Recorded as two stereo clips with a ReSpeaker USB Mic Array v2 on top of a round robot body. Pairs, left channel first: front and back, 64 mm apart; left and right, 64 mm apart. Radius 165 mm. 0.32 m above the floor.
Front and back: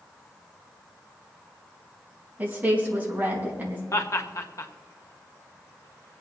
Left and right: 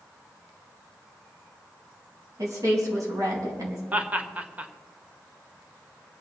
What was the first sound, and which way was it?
A woman speaking, 120° right.